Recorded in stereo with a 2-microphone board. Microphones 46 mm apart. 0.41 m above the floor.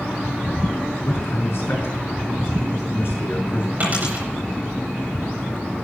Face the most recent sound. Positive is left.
turn(degrees=-35)  # may be behind; listen again after turning